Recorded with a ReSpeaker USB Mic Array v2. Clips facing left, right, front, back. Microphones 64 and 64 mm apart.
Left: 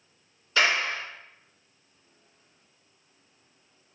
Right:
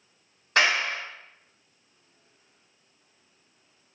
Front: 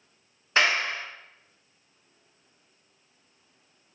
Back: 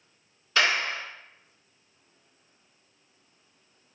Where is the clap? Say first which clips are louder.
Right 1 dB, front 1 dB; 60° right, 1.4 m.